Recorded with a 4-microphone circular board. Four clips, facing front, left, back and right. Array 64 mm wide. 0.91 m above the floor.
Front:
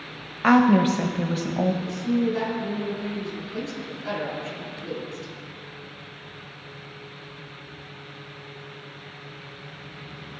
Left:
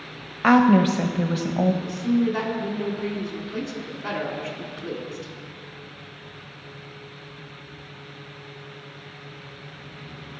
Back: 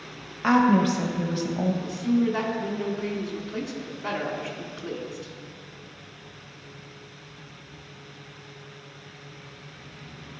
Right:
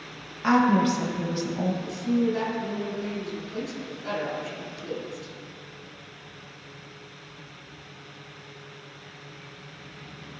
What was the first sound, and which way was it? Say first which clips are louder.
A woman speaking: left 4 dB, front 2 dB; 60° left.